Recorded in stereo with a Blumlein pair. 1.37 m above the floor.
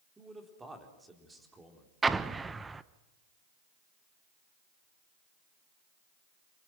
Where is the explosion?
10° right, 0.8 m.